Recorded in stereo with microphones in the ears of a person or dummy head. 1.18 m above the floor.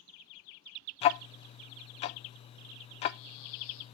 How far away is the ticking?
About 0.5 m.